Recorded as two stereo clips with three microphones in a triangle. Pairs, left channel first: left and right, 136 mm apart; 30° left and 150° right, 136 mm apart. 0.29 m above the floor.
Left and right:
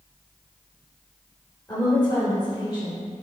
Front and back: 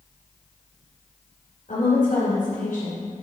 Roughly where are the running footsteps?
No running footsteps in this recording.